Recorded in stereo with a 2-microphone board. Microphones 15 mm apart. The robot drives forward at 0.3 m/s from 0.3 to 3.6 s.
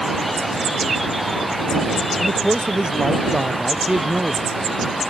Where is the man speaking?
65° right (ahead or behind).